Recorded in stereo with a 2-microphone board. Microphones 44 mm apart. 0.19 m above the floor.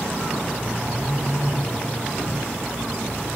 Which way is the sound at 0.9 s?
70° left (ahead or behind).